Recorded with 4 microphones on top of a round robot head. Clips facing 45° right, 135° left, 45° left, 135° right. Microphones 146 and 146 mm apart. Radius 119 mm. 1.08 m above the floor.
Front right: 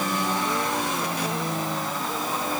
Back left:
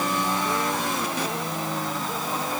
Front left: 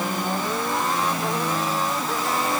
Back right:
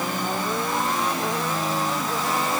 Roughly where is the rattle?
No rattle in this recording.